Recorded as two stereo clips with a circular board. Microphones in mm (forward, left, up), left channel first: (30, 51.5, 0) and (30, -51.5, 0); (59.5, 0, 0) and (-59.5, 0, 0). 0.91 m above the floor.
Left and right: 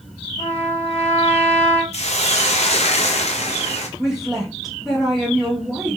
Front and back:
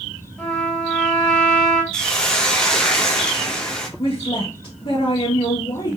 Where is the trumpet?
85° left, 1.5 m.